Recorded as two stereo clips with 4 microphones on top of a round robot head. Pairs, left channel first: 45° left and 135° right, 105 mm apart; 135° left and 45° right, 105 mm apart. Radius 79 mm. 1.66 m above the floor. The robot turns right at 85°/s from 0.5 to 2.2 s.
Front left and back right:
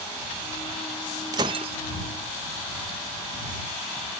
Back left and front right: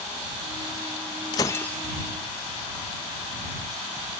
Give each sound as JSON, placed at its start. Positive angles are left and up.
{"t": 1.3, "sound": "breaking glass", "azimuth_deg": 175}